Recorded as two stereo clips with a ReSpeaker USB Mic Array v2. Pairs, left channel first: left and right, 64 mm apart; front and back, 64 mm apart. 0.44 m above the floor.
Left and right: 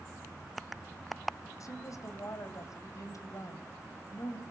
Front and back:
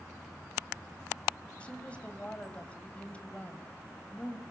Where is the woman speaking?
70° left, 2.5 m.